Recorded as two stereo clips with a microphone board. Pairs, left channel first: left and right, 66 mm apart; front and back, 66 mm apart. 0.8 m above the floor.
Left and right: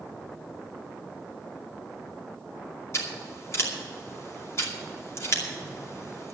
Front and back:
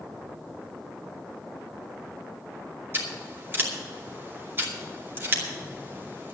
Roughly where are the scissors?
Behind left.